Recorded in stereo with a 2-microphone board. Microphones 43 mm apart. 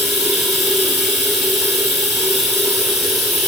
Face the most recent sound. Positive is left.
turn(degrees=-5)  # may be behind; listen again after turning